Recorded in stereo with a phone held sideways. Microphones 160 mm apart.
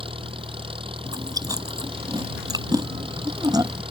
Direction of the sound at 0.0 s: 35° right (ahead or behind).